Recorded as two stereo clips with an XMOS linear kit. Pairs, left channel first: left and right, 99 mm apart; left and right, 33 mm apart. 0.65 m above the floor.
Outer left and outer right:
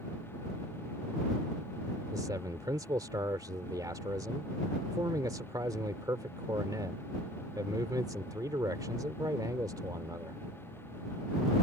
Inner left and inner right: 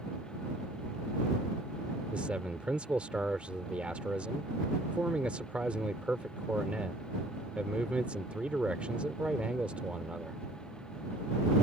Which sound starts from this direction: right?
A man speaking, at 2.1 s.